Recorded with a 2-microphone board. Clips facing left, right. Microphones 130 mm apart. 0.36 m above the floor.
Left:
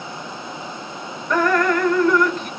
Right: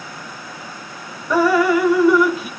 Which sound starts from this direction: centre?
Dripping, at 1.3 s.